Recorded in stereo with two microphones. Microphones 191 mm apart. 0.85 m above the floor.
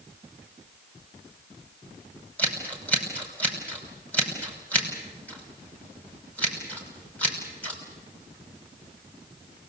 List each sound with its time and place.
2.4 s scissors: 10° left (ahead or behind), 5.5 m